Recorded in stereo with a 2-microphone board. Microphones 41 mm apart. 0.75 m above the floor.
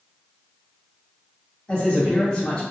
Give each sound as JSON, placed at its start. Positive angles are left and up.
{"t": 1.7, "sound": "a man speaking", "side_deg": 45, "distance_m": 1.5}